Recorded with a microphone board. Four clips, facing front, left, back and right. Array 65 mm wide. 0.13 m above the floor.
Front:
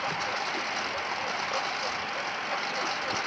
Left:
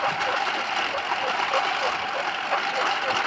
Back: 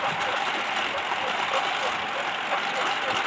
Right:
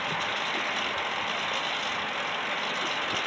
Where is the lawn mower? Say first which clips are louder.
Left 6 dB, back 5 dB; 110° left.